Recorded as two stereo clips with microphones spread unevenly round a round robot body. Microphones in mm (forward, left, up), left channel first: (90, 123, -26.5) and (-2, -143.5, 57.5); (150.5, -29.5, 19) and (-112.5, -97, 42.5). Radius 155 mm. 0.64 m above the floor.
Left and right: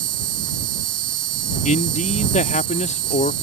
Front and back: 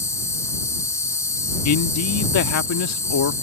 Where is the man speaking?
15° left.